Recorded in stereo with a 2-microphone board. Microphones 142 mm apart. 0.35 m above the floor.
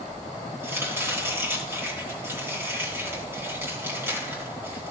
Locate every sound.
0.6 s chopping: 15° right (ahead or behind), 2.5 m